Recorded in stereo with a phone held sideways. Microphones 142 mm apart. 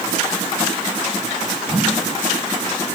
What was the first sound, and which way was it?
A whoosh, 5° right (ahead or behind).